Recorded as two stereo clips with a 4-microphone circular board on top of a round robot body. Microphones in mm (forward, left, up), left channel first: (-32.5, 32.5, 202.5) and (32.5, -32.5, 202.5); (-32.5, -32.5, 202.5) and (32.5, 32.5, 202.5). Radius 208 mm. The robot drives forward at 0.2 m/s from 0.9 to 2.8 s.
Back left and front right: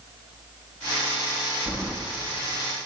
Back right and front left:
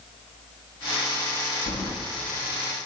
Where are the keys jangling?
115° right, 1.1 m.